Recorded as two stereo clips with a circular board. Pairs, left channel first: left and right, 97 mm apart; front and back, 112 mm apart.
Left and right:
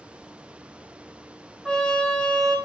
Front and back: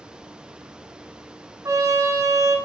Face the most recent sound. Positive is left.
turn(degrees=165)